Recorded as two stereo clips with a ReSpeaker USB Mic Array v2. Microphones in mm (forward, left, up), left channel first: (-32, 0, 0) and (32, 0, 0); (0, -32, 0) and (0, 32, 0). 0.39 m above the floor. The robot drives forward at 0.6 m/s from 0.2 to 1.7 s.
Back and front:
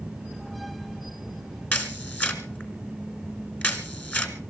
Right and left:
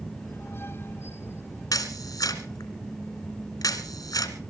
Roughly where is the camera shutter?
Behind right.